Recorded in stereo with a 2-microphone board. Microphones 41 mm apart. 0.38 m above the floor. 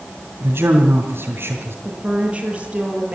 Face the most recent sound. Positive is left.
turn(degrees=-30)  # may be behind; listen again after turning